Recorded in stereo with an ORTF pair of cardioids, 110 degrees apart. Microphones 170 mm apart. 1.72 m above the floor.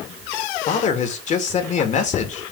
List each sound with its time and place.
0.7 s a man speaking: 45° left, 3 m